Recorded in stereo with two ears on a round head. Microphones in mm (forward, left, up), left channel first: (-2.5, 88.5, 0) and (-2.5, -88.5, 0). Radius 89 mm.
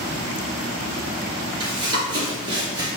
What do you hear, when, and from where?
1.6 s running footsteps: 25° right (ahead or behind), 1.7 m